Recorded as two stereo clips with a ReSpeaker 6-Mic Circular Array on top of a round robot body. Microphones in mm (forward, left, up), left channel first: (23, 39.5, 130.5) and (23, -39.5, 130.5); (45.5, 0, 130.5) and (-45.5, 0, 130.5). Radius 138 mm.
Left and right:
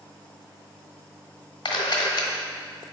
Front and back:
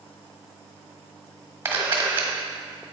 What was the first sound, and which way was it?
A camera shutter, 115° left.